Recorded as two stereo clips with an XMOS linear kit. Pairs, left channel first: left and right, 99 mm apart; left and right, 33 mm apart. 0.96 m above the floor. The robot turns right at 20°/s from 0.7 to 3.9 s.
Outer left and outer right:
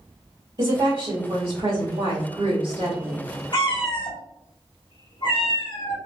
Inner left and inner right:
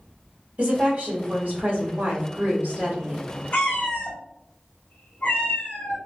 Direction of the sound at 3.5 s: 50° left (ahead or behind).